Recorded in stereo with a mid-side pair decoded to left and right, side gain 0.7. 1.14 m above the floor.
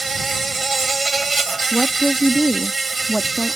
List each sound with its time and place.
0.0 s an insect: 15° right
1.7 s a woman speaking: 5° right